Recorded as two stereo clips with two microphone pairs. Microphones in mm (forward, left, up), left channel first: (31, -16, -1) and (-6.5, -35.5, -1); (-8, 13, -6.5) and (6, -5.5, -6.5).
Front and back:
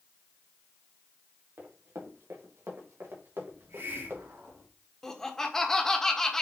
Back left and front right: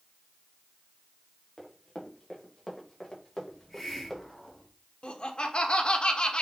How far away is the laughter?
About 1.5 m.